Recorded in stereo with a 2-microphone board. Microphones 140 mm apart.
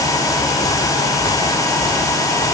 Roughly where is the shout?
No shout in this recording.